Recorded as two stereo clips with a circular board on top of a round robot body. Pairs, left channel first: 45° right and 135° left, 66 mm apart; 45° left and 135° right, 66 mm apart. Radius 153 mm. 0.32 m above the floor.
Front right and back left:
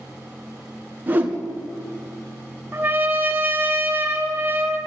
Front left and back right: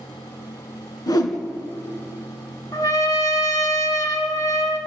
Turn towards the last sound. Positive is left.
turn(degrees=75)